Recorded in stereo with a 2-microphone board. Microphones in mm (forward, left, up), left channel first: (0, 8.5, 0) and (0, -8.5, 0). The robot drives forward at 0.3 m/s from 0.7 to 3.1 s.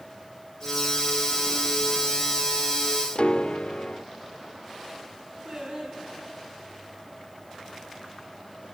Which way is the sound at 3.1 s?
70° left (ahead or behind).